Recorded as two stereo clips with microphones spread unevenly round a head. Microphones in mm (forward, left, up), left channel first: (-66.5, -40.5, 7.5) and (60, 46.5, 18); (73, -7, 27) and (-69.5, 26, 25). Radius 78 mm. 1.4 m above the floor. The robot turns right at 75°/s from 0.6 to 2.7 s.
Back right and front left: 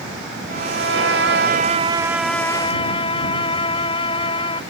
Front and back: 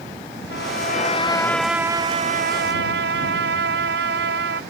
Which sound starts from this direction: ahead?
A violin, at 0.5 s.